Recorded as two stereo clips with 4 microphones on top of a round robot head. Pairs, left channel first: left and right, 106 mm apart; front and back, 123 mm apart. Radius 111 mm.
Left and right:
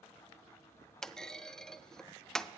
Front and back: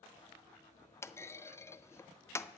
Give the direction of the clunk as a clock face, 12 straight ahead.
12 o'clock.